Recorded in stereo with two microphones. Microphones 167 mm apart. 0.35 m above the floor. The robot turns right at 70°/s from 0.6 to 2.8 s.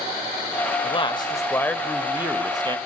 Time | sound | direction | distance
0.8 | a man speaking | 105° left | 1.6 m